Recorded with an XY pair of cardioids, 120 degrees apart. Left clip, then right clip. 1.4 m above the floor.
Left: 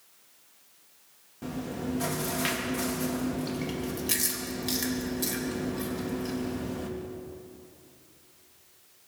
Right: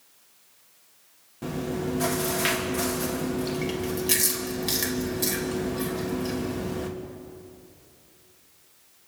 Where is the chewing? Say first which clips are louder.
Right 5 dB; 20° right, 2.5 m.